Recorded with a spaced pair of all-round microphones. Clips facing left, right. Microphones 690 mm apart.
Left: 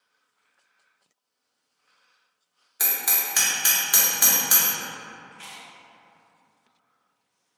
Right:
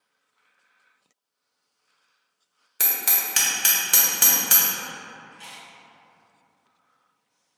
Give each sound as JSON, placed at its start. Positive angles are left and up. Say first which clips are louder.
{"t": 2.8, "sound": "hammering", "louder": "even", "side_deg": -55, "distance_m": 0.8}
{"t": 5.3, "sound": "chewing", "louder": "even", "side_deg": 40, "distance_m": 0.6}